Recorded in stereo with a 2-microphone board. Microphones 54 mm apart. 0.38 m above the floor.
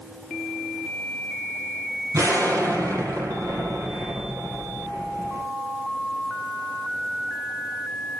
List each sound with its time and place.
2.1 s an explosion: 85° right, 5 m